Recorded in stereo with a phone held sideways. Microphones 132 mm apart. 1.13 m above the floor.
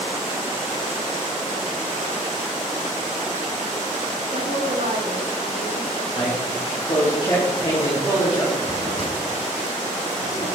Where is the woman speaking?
75° right (ahead or behind), 1.9 m.